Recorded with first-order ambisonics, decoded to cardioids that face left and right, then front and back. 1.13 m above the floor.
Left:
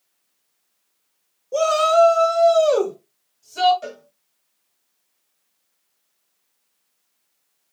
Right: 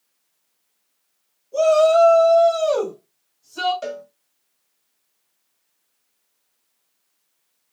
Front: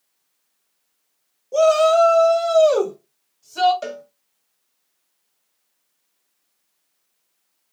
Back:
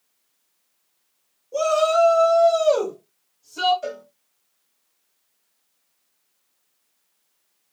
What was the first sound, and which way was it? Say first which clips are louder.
A shout: right 2 dB, front 4 dB; 50° left.